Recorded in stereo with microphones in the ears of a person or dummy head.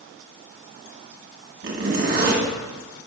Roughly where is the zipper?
Right.